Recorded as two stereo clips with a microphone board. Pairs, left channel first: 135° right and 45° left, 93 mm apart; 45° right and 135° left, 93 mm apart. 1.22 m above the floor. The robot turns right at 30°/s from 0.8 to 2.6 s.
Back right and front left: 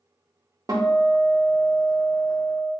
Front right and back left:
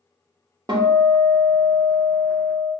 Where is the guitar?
95° left, 0.6 m; by 2.7 s 150° left, 0.6 m.